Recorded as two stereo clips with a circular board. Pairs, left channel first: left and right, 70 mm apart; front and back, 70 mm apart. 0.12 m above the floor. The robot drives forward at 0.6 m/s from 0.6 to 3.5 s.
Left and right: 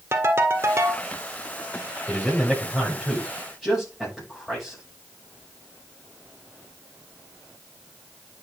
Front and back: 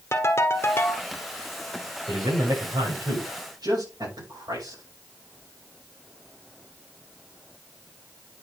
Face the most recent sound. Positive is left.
turn(degrees=175)